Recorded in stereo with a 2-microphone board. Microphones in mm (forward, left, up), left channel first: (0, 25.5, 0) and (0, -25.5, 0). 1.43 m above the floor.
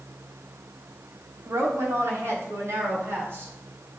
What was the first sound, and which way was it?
A woman speaking, 85° right.